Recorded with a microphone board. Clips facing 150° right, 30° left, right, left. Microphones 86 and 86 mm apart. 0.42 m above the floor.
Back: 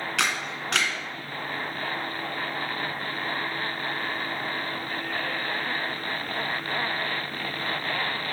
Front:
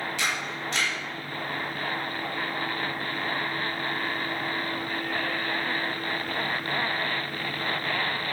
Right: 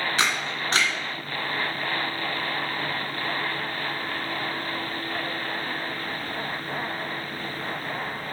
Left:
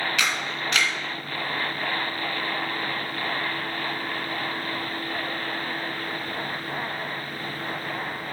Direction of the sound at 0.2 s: 145° right.